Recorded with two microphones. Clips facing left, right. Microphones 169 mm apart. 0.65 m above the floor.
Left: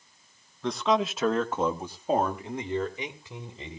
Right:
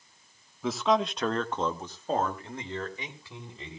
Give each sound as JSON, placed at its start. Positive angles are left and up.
{"t": 0.6, "sound": "a man speaking", "side_deg": -5, "distance_m": 1.1}